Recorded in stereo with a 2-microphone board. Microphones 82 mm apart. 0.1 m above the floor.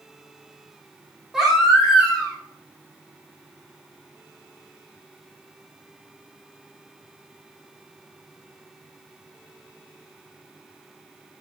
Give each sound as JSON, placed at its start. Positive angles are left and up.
{"t": 1.3, "sound": "a baby crying", "side_deg": -5, "distance_m": 4.0}